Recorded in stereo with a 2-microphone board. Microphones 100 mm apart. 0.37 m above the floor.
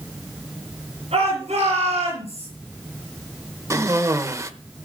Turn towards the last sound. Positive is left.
turn(degrees=-30)  # may be behind; listen again after turning